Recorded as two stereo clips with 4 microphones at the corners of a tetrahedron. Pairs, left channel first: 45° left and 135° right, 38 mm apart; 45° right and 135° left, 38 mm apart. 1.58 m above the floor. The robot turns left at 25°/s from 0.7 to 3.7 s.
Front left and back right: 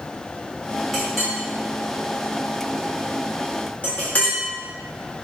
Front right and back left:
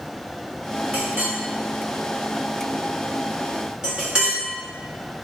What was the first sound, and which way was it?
A clink, 145° left.